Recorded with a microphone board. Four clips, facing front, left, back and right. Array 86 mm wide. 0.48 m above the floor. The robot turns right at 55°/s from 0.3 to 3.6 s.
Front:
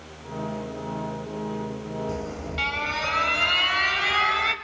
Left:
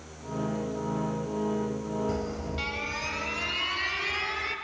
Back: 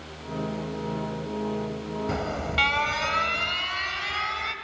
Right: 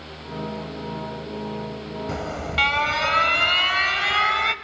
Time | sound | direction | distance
2.1 | an alarm | 145° right | 1.4 m